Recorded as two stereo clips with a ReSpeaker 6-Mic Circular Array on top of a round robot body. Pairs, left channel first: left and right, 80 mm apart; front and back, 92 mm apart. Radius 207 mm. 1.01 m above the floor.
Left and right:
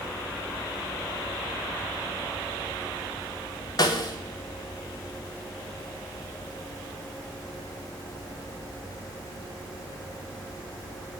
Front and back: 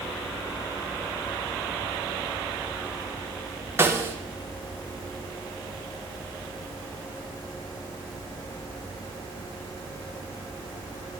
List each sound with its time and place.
3.8 s a snare drum: 120° left, 1.2 m